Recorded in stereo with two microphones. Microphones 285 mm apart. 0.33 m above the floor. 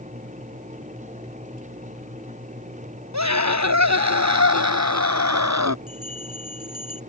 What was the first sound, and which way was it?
A scream, 75° right (ahead or behind).